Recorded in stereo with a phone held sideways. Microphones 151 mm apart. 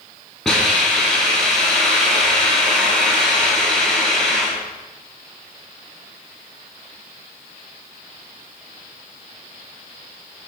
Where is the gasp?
No gasp in this recording.